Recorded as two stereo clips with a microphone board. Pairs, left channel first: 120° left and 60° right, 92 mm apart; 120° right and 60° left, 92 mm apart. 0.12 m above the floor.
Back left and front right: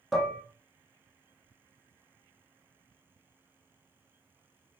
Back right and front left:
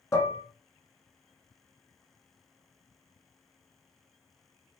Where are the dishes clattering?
150° right, 0.9 m.